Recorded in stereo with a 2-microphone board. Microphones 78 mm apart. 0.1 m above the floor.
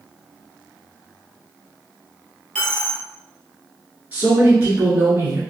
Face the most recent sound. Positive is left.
turn(degrees=-25)  # may be behind; listen again after turning